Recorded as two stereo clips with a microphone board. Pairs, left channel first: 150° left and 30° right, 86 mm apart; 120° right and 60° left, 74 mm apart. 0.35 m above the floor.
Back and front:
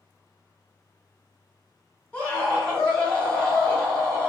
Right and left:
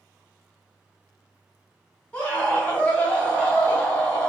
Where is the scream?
165° right, 1.4 m.